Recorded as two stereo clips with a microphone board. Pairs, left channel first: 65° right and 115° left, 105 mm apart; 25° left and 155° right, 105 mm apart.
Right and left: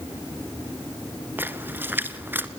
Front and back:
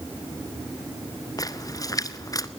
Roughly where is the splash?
Ahead left.